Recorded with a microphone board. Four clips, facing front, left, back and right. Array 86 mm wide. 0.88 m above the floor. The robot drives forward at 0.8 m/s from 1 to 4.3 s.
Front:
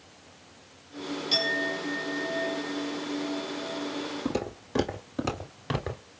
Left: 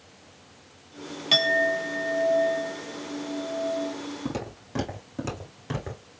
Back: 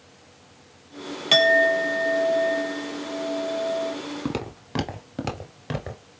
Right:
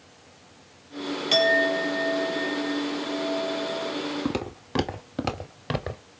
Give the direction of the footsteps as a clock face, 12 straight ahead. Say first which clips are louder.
Right 4 dB, back 1 dB; 5 o'clock.